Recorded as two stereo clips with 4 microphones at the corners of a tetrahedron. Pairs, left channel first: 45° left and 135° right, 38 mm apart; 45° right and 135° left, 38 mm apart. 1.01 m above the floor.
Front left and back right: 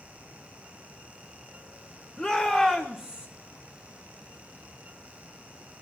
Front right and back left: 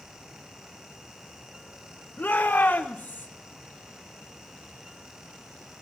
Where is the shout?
30° right, 1.3 m; by 3.3 s 70° right, 1.4 m.